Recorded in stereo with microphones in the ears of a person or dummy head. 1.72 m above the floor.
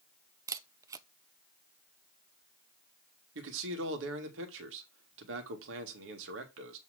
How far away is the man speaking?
About 1.9 m.